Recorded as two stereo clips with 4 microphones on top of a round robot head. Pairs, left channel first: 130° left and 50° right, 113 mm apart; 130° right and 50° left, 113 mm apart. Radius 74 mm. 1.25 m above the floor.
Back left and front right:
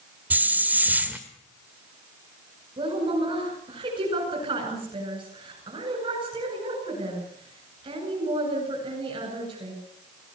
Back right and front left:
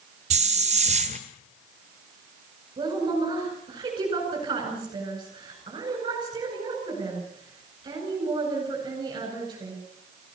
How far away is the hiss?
About 1.4 m.